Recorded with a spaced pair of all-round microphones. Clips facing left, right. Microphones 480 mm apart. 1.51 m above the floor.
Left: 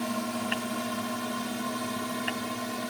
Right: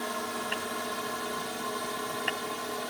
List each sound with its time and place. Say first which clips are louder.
0.0 s a drone: left 5 dB; 45° left (ahead or behind)